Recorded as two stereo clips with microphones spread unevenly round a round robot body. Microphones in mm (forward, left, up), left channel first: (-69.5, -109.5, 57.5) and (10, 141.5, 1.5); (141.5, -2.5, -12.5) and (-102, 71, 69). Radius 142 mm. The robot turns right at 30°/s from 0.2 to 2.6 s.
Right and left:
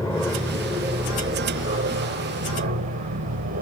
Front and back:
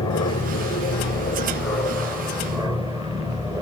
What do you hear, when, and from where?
0.0 s an aircraft: 20° right; by 3.6 s 75° left